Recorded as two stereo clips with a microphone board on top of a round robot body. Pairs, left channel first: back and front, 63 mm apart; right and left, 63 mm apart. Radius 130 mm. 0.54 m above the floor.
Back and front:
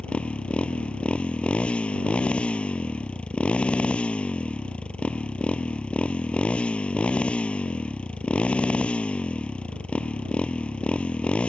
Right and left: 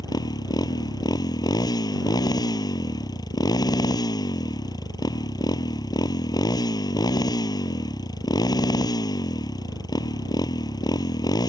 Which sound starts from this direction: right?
A motorcycle, at 0.0 s.